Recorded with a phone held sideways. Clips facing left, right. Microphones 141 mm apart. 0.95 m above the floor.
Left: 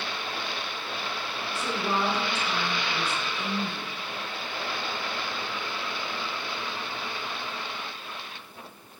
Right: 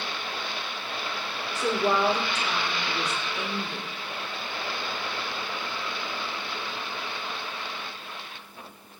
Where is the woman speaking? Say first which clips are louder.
Right 5 dB; 70° right (ahead or behind), 2.5 m.